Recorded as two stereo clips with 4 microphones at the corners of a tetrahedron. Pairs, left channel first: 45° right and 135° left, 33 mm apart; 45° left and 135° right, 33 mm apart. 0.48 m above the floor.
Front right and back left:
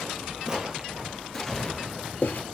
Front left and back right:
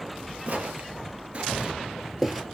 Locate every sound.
0.5 s footsteps: 165° right, 0.7 m; by 2.4 s 50° right, 0.7 m